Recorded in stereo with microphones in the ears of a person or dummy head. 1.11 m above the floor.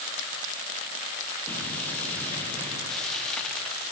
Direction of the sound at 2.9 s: 5° left (ahead or behind).